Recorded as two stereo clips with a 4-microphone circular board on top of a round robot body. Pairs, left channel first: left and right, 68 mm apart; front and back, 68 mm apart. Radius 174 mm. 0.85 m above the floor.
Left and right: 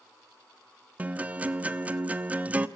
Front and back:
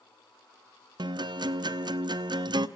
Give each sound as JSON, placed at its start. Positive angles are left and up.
{"t": 1.0, "sound": "a guitar", "azimuth_deg": -165, "distance_m": 1.1}